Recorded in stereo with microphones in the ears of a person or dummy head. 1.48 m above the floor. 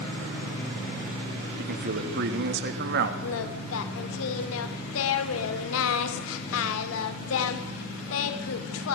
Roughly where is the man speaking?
Right.